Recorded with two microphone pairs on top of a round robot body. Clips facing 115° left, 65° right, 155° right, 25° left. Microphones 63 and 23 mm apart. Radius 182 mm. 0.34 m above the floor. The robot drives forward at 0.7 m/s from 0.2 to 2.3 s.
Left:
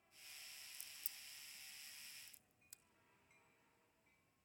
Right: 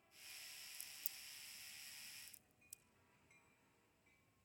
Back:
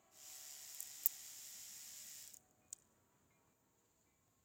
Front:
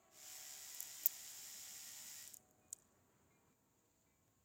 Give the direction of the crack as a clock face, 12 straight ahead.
10 o'clock.